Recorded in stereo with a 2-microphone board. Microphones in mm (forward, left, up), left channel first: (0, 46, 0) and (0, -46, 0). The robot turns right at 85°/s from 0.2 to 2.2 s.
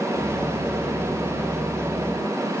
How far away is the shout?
No shout in this recording.